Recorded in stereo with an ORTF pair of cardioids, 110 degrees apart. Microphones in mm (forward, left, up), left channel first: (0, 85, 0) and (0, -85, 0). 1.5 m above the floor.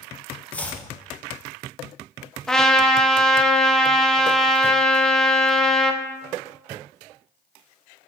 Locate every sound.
0.5 s chopping: 10° left, 0.7 m
2.5 s a trumpet: 5° left, 0.6 m